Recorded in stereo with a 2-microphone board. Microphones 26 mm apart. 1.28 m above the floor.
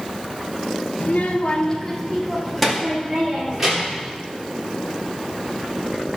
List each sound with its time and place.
1.0 s a child speaking: 70° left (ahead or behind), 1.0 m; by 4.1 s 15° right (ahead or behind), 3.5 m